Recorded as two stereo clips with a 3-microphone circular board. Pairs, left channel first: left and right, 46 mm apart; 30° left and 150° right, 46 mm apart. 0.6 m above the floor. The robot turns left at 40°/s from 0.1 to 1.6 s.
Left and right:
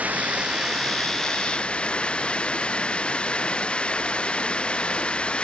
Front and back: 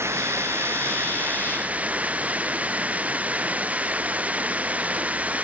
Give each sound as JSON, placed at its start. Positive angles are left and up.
{"t": 0.0, "sound": "running water", "azimuth_deg": -145}